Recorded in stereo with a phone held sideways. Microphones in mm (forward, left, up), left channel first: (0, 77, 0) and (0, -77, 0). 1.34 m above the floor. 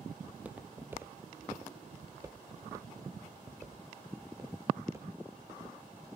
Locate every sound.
0.3 s footsteps: 10° right (ahead or behind), 1.4 m; by 5.8 s 20° right (ahead or behind), 3.5 m